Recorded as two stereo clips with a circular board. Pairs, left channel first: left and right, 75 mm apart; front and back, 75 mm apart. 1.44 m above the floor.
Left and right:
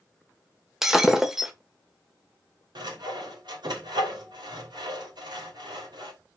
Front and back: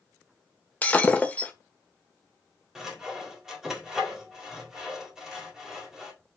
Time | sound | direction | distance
0.8 | breaking glass | 20° right | 1.1 m
2.8 | sawing | 95° right | 3 m